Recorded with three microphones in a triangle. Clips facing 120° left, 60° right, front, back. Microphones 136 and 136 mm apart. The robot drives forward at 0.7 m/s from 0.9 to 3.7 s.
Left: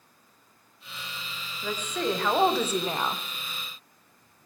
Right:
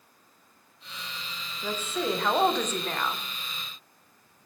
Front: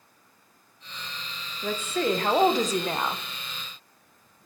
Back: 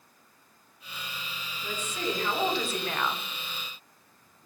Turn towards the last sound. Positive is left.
turn(degrees=115)